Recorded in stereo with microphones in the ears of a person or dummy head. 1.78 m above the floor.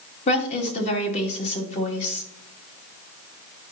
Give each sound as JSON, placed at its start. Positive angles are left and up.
{"t": 0.3, "sound": "a woman speaking", "side_deg": 40, "distance_m": 3.0}